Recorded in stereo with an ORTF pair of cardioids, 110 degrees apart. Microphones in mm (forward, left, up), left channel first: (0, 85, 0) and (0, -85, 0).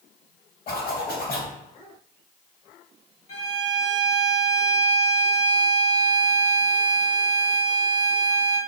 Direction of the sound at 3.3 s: 45° left.